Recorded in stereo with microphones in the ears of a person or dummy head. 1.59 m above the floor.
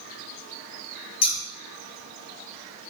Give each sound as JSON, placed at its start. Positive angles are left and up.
{"t": 1.2, "sound": "scissors", "side_deg": 35, "distance_m": 2.0}